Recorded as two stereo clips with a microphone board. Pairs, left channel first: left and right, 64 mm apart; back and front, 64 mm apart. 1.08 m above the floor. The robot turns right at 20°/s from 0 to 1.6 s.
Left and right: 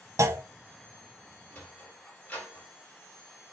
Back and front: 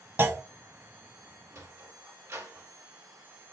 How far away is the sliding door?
About 1.4 m.